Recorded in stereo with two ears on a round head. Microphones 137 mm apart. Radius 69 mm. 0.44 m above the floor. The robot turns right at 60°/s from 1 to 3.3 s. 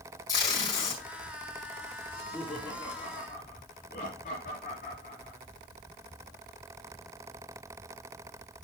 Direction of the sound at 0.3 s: 25° left (ahead or behind).